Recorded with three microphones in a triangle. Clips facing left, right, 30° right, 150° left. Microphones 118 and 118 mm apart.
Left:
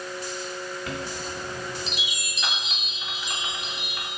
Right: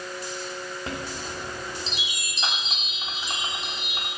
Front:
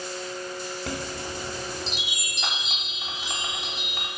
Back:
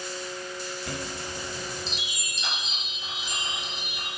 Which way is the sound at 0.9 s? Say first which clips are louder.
Left 1 dB, front 2 dB; 30° right.